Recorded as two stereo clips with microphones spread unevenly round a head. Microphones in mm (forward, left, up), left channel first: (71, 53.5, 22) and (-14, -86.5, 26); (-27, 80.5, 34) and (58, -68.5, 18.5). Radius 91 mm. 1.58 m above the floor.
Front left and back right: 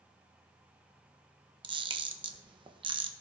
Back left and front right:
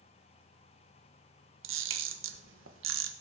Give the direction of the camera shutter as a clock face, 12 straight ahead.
2 o'clock.